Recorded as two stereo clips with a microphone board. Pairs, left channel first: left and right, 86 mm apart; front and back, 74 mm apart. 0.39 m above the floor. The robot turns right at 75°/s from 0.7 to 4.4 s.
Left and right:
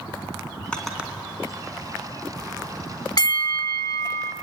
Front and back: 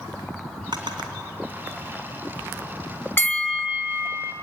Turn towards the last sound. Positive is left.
turn(degrees=150)